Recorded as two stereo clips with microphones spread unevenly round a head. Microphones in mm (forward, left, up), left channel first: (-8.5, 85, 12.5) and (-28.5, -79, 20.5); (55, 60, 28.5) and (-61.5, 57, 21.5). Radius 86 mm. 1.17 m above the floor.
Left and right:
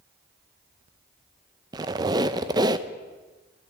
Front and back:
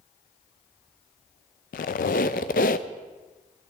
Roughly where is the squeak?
Ahead right.